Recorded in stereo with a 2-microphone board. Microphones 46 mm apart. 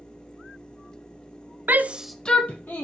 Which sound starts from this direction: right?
A shout, at 1.7 s.